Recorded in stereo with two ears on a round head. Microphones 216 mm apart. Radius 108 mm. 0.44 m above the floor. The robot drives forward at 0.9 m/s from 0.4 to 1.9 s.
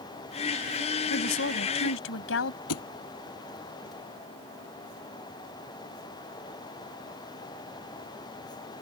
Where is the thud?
65° left (ahead or behind).